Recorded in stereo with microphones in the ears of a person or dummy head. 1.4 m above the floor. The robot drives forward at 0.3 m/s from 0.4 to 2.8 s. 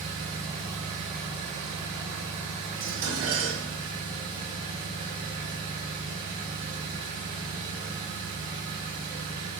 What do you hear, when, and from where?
0.0 s an engine running: 35° right (ahead or behind), 1.8 m; by 9.6 s 25° right (ahead or behind), 2.5 m
2.8 s dishes clattering: 75° right (ahead or behind), 1.3 m